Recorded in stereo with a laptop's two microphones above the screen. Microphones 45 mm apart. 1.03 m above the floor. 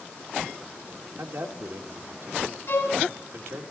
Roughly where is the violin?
Left.